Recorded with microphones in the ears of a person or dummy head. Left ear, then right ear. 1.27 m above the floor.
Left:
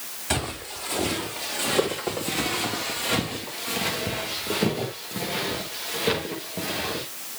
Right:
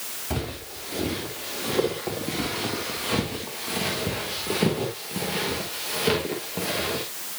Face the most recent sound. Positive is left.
turn(degrees=-15)  # may be behind; listen again after turning